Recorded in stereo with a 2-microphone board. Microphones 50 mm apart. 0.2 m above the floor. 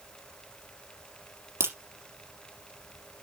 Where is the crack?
55° right (ahead or behind), 4 m.